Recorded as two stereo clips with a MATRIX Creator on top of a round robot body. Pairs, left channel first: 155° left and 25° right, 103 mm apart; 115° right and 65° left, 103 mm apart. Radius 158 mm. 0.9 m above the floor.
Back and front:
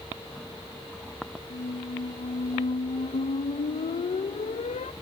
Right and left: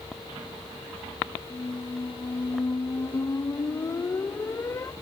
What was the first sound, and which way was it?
A squeak, straight behind.